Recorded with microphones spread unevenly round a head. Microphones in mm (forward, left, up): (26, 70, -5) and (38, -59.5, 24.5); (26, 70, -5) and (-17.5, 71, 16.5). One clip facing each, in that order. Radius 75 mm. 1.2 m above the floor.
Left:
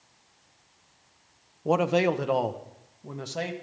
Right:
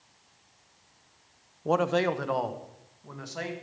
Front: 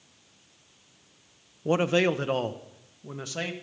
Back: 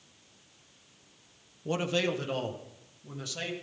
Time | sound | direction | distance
1.6 | a man speaking | 20° left | 0.7 m